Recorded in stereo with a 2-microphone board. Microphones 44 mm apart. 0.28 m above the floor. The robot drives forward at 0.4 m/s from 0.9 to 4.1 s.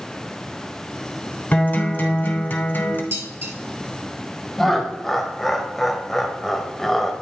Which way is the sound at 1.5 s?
35° left (ahead or behind).